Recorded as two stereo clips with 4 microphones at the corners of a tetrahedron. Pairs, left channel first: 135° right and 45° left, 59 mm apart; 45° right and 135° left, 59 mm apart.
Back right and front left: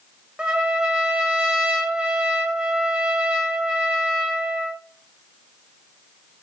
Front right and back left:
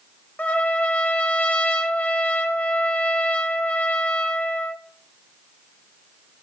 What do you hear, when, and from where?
0.4 s a trumpet: 15° right, 0.8 m